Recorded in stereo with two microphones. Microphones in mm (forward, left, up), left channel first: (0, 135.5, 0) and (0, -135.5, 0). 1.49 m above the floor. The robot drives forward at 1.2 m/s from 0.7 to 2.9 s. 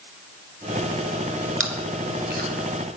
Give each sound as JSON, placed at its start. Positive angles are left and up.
{"t": 1.6, "sound": "chewing", "side_deg": -45, "distance_m": 2.0}